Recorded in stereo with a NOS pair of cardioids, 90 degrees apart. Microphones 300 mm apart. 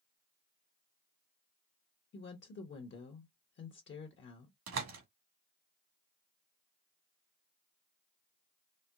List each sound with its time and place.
2.1 s a woman speaking: 40° left, 1.0 m
4.7 s a door slam: 60° right, 1.6 m